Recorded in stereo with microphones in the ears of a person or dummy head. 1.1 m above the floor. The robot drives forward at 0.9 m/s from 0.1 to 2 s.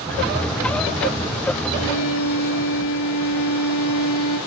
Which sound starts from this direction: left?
A violin, at 1.7 s.